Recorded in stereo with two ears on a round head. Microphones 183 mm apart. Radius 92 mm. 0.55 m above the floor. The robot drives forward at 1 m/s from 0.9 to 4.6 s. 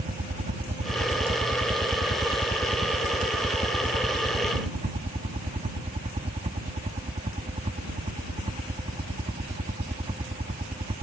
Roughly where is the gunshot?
No gunshot in this recording.